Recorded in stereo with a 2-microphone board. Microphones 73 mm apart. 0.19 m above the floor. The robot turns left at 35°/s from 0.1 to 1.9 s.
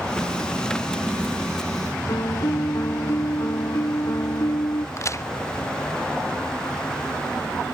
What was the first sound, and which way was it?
A piano, 55° left (ahead or behind).